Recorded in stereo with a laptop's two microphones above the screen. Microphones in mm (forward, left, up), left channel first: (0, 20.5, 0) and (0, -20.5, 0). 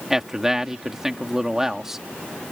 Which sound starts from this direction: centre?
A man speaking, at 0.1 s.